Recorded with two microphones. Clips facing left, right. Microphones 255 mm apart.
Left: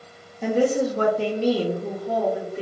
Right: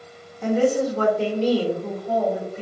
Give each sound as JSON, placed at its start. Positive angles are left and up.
{"t": 0.4, "sound": "a woman speaking", "side_deg": 10, "distance_m": 0.8}